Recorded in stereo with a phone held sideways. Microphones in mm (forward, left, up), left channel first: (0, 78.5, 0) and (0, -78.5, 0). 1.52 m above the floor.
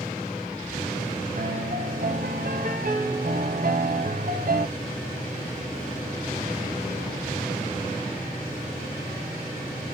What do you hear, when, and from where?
1.4 s a piano: 65° right (ahead or behind), 1.0 m